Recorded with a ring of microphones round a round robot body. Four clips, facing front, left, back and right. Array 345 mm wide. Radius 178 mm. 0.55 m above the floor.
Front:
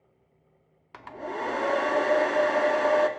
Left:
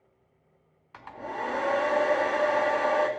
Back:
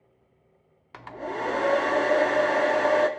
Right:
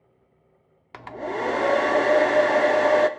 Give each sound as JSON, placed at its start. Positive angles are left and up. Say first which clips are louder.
{"t": 0.9, "sound": "a hair dryer", "louder": "right 6 dB, back 1 dB", "azimuth_deg": -90, "distance_m": 0.8}